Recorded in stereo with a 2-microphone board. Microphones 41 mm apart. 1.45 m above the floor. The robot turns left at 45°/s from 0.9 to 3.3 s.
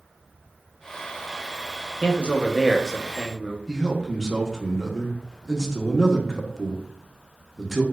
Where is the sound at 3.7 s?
5° left (ahead or behind), 0.7 m.